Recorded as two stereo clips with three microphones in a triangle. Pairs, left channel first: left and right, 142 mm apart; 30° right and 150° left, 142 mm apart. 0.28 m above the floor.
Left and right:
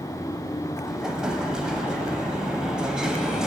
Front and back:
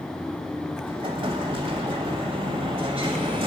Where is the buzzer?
No buzzer in this recording.